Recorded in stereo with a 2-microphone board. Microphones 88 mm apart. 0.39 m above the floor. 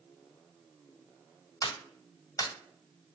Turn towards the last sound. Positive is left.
turn(degrees=40)  # may be behind; listen again after turning